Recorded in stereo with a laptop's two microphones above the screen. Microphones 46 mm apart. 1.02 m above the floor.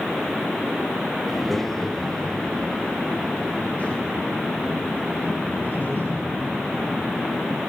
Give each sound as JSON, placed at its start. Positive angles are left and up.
{"t": 1.3, "sound": "a child speaking", "side_deg": 0, "distance_m": 3.0}